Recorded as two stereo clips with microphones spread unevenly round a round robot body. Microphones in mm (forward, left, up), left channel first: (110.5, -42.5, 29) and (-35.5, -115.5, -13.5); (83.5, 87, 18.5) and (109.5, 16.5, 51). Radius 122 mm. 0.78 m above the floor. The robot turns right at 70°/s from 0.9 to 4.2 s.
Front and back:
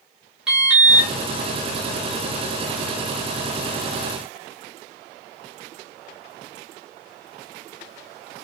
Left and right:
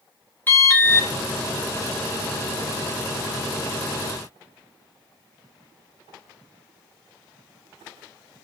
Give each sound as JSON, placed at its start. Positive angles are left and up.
{"t": 0.5, "sound": "an alarm", "azimuth_deg": 135, "distance_m": 2.5}